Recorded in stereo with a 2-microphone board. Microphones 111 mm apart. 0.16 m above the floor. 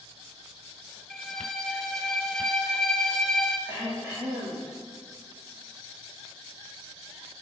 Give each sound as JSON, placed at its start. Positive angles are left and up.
{"t": 1.1, "sound": "a violin", "side_deg": 5, "distance_m": 1.4}
{"t": 3.7, "sound": "throat clearing", "side_deg": -20, "distance_m": 6.0}